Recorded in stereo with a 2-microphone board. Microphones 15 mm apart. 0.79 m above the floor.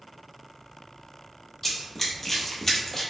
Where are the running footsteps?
15° left (ahead or behind), 1.1 m; by 3.0 s 20° left (ahead or behind), 1.1 m.